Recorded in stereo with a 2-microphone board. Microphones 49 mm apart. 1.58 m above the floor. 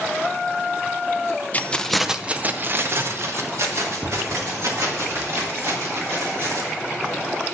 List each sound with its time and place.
1.5 s keys jangling: 30° left (ahead or behind), 0.5 m; by 6.7 s 70° right (ahead or behind), 3.5 m